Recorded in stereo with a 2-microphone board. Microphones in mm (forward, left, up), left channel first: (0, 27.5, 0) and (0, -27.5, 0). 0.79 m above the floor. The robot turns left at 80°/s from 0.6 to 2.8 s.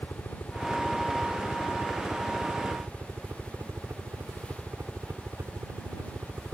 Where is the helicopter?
70° left; by 6.5 s 105° right.